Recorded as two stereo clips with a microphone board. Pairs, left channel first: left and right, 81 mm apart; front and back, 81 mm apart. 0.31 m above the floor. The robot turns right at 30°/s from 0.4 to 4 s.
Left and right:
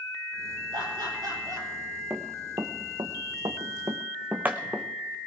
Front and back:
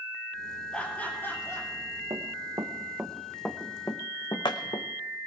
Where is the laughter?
80° right, 7 m; by 1.7 s 50° right, 7 m.